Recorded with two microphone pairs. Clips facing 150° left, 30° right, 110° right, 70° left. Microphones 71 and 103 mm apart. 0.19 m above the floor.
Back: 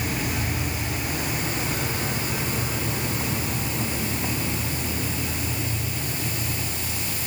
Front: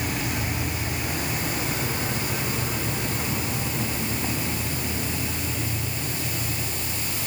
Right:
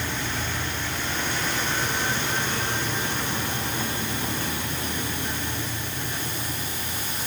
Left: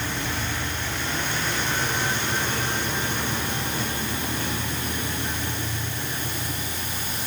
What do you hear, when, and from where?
Only background noise.